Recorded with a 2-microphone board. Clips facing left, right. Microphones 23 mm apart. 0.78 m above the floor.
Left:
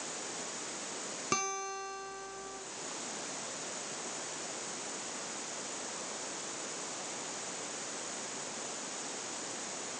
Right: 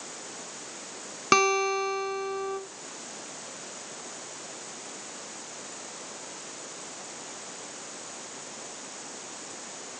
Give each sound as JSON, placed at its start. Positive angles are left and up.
{"t": 1.3, "sound": "a guitar", "side_deg": -50, "distance_m": 1.0}